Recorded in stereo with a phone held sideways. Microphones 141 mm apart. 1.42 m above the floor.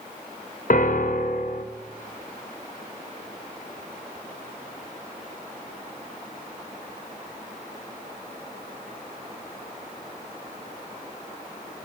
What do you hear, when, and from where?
0.7 s a piano: 65° left (ahead or behind), 0.5 m